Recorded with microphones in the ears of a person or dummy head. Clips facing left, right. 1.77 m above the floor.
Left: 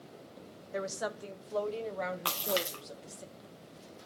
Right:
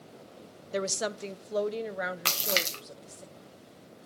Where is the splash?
25° right (ahead or behind), 0.8 m.